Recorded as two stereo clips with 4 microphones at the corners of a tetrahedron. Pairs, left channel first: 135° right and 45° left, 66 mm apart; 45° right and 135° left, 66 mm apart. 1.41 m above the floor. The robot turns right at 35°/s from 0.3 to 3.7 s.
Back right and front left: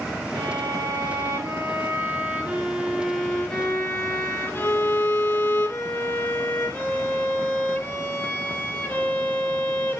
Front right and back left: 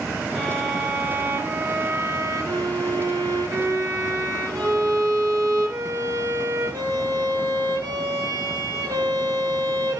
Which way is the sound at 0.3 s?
45° left.